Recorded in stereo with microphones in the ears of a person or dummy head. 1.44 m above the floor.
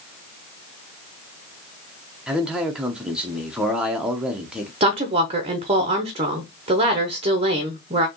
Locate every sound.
2.3 s a man speaking: 15° right (ahead or behind), 0.8 m
4.8 s a woman speaking: 40° right (ahead or behind), 0.8 m